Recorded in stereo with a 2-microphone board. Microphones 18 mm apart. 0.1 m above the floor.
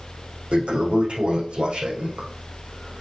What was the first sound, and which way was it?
A toilet flushing, 70° right (ahead or behind).